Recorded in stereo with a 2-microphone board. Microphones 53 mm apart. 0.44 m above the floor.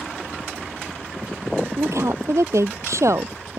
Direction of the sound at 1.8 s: 75° right (ahead or behind).